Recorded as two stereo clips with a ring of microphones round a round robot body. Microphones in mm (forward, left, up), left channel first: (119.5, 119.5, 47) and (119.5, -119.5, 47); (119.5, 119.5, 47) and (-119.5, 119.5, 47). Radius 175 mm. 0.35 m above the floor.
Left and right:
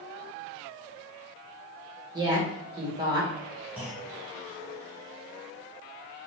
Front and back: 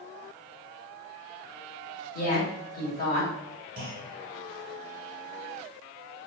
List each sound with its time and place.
2.1 s a woman speaking: 30° right, 1.7 m
3.8 s a clunk: 170° right, 1.1 m